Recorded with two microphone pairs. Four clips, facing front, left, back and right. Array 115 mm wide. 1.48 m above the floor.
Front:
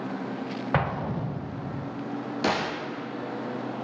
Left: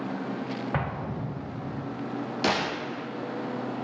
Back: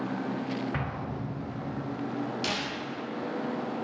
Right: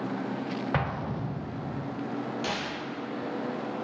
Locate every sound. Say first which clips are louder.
0.7 s an explosion: even, front 7 dB; 5° right, 0.7 m
2.4 s a gunshot: left 5 dB, front 6 dB; 40° left, 0.7 m